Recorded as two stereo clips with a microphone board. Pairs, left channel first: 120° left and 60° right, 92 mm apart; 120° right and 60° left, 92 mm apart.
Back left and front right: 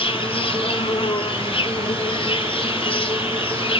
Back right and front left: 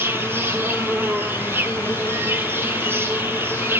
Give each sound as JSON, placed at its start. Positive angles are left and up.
{"t": 0.0, "sound": "an insect", "azimuth_deg": 125, "distance_m": 1.2}